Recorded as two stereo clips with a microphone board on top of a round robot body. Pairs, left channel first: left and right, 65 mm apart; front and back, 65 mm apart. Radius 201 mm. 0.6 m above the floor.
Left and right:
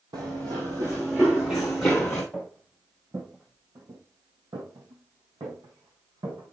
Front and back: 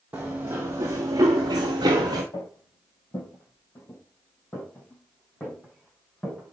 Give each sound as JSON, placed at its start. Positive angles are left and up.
{"t": 0.1, "sound": "running footsteps", "azimuth_deg": -110, "distance_m": 1.1}
{"t": 2.3, "sound": "footsteps", "azimuth_deg": -10, "distance_m": 1.0}